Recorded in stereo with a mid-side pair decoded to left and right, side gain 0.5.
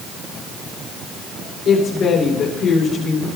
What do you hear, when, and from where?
1.6 s a woman speaking: 50° left, 3 m